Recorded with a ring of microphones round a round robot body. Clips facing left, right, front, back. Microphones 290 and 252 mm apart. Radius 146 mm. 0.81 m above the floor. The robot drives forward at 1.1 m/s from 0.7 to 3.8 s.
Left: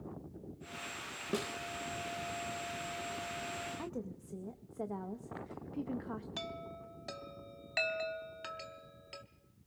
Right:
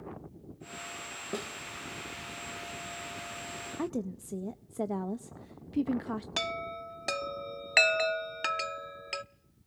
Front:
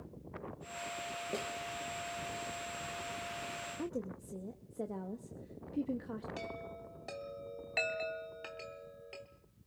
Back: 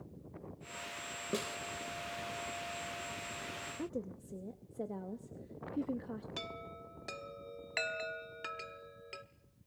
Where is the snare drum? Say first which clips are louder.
Left 1 dB, back 3 dB; 150° left, 0.6 m; by 1.6 s 165° left, 0.7 m.